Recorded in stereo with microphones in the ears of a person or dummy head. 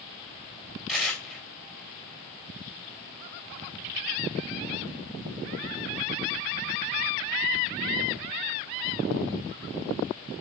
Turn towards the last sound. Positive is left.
turn(degrees=-5)  # may be behind; listen again after turning